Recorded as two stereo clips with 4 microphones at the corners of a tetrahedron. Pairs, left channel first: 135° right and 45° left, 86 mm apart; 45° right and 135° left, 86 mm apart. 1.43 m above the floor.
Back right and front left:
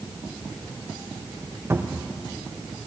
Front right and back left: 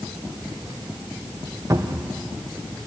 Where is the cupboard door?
95° left, 0.7 m.